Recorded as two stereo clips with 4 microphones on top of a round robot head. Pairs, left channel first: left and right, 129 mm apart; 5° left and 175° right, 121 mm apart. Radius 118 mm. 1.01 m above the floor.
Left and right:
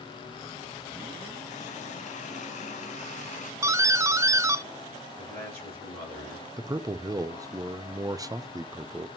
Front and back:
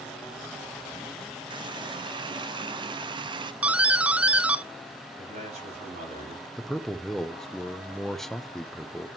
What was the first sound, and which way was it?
A running tap, 135° left.